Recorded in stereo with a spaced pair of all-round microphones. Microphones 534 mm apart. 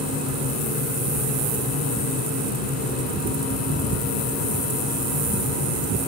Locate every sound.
0.0 s a fan: 30° right (ahead or behind), 4.5 m